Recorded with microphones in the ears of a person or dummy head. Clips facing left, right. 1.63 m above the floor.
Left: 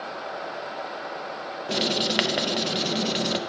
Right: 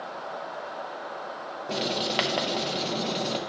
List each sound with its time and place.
1.7 s writing: 20° left (ahead or behind), 0.5 m